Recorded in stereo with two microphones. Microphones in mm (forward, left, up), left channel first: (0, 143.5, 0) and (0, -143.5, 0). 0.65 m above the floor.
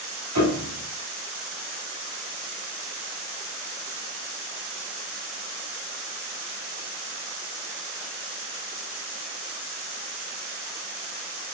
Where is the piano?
70° right (ahead or behind), 2.5 m.